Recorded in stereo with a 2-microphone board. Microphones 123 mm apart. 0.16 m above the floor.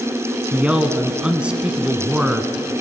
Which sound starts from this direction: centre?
A man speaking, at 0.5 s.